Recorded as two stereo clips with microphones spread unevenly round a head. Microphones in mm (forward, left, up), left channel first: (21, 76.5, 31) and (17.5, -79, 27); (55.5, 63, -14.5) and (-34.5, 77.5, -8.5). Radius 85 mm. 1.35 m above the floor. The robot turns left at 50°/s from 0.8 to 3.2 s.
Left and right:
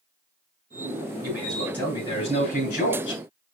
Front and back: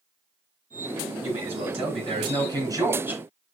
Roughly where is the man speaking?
Behind.